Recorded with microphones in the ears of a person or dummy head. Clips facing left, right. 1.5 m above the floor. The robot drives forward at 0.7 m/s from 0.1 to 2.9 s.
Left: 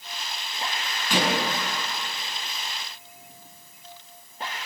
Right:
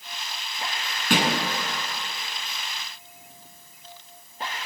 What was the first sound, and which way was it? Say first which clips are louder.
A thud: right 1 dB; 50° right (ahead or behind).